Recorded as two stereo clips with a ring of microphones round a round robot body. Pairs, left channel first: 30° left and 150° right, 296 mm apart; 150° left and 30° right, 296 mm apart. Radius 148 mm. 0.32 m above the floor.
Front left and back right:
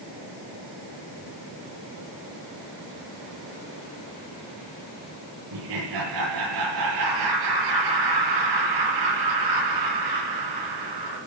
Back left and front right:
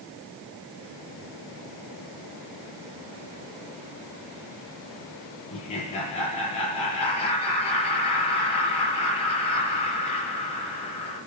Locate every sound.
5.5 s laughter: 145° right, 6.5 m